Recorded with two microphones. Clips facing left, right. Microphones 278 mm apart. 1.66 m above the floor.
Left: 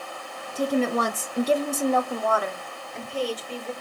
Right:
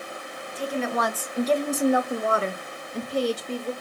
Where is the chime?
No chime in this recording.